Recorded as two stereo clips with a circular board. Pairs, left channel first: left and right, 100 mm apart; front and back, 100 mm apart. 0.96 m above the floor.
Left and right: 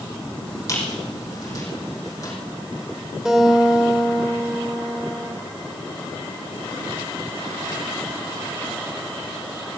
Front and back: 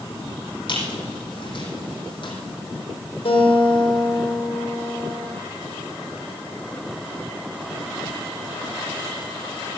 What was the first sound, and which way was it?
A squeak, 35° left.